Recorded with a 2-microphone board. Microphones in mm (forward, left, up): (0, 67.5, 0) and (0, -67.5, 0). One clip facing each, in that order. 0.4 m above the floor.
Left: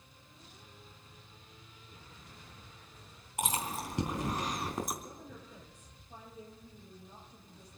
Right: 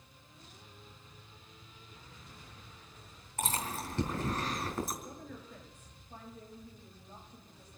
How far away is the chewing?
About 3.5 m.